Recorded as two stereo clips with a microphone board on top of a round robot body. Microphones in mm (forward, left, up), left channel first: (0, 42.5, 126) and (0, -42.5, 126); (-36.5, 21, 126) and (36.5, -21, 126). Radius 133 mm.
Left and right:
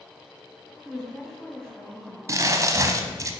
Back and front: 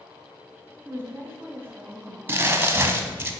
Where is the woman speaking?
10° left, 1.3 m.